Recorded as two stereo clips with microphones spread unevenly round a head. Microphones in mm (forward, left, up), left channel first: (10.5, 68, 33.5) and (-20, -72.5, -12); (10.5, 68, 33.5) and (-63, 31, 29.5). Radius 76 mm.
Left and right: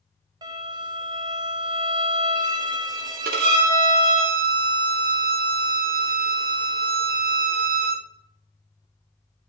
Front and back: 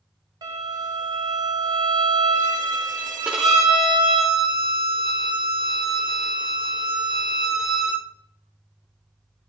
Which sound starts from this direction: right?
A violin, at 3.2 s.